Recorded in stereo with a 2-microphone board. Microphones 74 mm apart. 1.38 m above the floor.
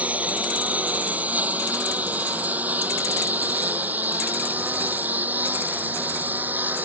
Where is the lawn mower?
20° right (ahead or behind); by 6.8 s 25° right (ahead or behind).